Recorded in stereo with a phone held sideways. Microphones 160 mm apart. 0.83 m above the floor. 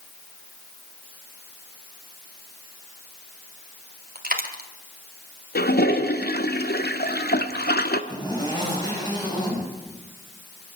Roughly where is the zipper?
Left.